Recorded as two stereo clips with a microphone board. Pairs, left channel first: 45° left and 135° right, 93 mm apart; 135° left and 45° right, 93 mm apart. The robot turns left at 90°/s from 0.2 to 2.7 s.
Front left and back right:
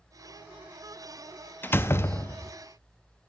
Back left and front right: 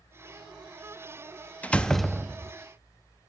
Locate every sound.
1.6 s a door slam: 85° left, 0.5 m; by 2.5 s 5° left, 0.5 m